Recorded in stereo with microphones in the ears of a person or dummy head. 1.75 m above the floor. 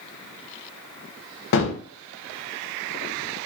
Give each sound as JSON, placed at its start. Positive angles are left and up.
{"t": 1.5, "sound": "a gunshot", "side_deg": 60, "distance_m": 0.7}